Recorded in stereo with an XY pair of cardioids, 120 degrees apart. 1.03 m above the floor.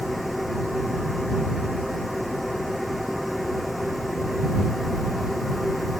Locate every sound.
0.0 s a machine running: 5° left